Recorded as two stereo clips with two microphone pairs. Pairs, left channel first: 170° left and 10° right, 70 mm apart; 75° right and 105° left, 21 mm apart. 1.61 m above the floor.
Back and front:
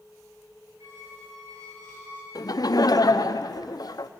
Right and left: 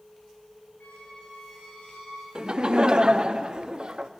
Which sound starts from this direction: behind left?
Laughter, at 2.4 s.